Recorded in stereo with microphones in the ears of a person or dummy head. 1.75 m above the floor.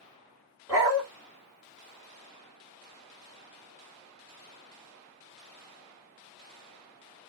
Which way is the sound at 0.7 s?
15° right (ahead or behind).